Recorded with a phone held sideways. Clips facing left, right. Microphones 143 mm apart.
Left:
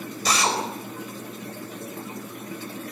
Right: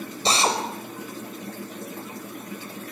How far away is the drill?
About 5 m.